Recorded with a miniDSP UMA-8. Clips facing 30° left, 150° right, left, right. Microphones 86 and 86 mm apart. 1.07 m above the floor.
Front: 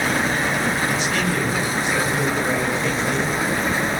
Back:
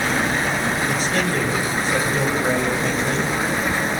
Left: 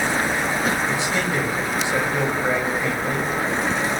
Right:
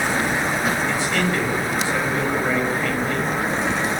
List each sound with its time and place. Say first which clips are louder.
0.9 s a man speaking: back 1 dB, right 1 dB; 160° left, 7 m